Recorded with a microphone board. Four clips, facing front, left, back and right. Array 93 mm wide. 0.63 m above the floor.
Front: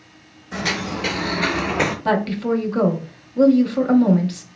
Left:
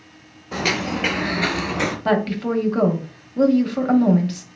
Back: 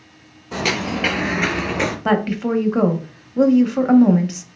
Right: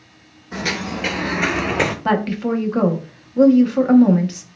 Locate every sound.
0.5 s footsteps: 140° left, 1.1 m; by 1.9 s 80° right, 0.9 m
2.0 s a woman speaking: 155° right, 0.6 m